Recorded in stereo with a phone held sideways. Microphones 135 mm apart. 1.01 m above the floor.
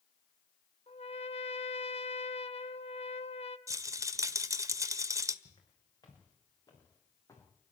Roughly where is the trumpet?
Left.